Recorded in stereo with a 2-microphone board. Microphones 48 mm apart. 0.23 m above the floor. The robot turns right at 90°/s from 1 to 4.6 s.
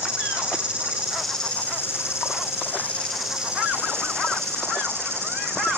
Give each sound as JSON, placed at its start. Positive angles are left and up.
{"t": 0.0, "sound": "an insect", "azimuth_deg": -20, "distance_m": 5.0}